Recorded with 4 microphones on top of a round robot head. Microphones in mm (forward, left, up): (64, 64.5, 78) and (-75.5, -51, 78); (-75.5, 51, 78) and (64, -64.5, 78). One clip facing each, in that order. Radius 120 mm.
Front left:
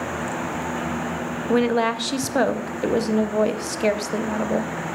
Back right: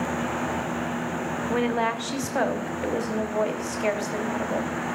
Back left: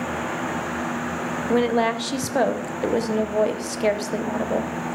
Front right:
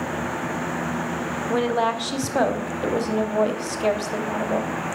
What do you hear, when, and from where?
1.5 s a woman speaking: 70° left, 0.9 m